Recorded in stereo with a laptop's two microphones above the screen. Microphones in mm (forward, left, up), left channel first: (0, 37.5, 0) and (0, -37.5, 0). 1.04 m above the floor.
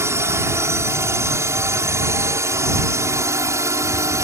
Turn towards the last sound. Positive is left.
turn(degrees=-40)  # may be behind; listen again after turning